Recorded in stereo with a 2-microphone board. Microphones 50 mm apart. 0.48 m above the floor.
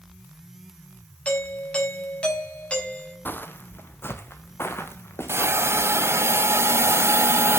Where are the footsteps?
40° left (ahead or behind), 1.1 m; by 6.2 s 50° left (ahead or behind), 4 m.